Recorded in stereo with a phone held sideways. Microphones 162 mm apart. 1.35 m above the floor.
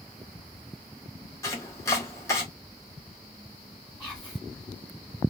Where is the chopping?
20° left (ahead or behind), 1.0 m.